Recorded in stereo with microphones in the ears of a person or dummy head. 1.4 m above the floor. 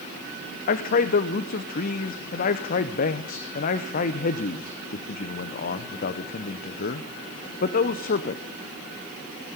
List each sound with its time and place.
0.7 s a man speaking: 50° left (ahead or behind), 0.7 m